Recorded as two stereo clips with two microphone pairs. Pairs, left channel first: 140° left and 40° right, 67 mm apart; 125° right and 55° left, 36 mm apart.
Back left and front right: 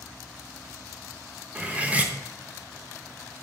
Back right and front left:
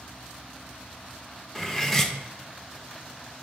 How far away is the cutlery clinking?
About 0.7 m.